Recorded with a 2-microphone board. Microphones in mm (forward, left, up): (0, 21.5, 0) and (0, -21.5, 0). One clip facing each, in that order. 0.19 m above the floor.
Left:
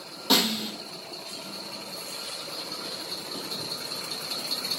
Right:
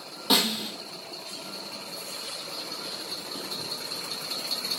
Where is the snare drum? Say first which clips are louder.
Left 1 dB; 10° right (ahead or behind), 2.5 m.